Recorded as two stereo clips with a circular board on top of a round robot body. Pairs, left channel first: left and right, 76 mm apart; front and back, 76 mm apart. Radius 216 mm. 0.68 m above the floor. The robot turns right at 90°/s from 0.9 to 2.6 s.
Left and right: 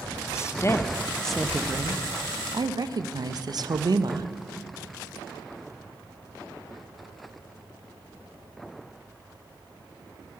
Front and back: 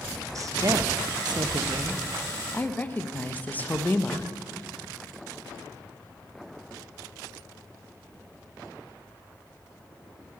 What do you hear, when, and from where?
0.3 s a woman speaking: 140° left, 0.7 m; by 4.3 s 65° right, 0.7 m